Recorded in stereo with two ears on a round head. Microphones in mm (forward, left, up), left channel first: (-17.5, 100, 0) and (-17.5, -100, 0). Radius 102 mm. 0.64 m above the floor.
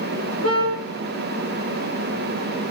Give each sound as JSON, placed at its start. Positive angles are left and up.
{"t": 0.4, "sound": "a car horn", "side_deg": -70, "distance_m": 5.5}